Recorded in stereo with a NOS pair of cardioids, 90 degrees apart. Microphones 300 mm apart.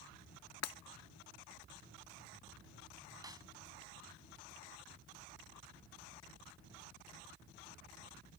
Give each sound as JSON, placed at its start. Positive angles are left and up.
{"t": 0.6, "sound": "breaking glass", "azimuth_deg": 60}
{"t": 3.2, "sound": "a snare drum", "azimuth_deg": -15}